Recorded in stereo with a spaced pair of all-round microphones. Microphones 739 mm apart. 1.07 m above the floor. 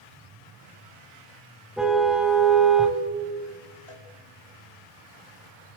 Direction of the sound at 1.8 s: Centre (ahead or behind).